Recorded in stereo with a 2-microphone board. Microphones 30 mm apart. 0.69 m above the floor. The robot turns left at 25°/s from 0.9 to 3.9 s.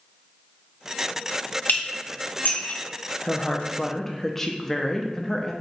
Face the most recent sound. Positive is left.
turn(degrees=15)  # may be behind; listen again after turning